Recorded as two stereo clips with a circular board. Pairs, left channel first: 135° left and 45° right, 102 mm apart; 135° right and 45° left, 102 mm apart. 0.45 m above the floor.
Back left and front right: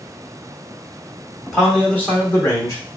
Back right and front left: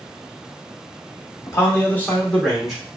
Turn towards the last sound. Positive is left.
turn(degrees=125)